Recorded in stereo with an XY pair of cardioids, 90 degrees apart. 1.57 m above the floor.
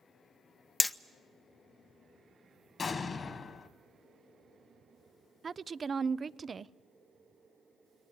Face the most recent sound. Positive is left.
turn(degrees=-40)